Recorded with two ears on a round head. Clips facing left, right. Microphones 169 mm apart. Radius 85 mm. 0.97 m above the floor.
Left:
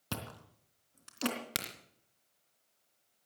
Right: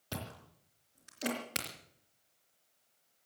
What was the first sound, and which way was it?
Chewing, 70° left (ahead or behind).